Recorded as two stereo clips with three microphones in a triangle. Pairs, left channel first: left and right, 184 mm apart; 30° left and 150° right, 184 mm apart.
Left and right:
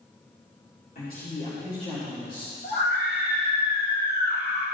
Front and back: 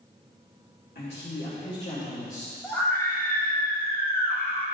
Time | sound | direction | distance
0.9 | a woman speaking | 55° left | 2 m
2.6 | a scream | 105° left | 1.6 m